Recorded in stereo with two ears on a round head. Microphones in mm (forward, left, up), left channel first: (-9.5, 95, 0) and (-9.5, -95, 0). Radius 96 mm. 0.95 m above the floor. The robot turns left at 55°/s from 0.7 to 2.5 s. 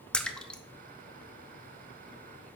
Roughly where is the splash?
Centre.